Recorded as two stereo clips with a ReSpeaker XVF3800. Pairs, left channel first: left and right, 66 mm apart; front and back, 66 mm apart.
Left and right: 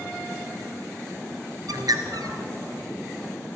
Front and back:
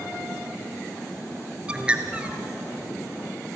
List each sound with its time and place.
1.7 s a bird: 105° right, 1.9 m